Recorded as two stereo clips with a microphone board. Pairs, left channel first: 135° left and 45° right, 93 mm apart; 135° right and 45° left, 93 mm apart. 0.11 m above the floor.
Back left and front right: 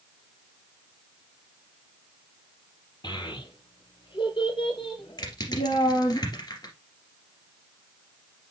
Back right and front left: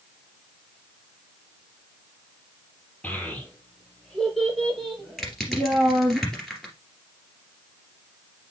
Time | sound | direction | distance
3.0 | a child speaking | 145° left | 2.0 m
5.2 | crushing | 135° left | 2.5 m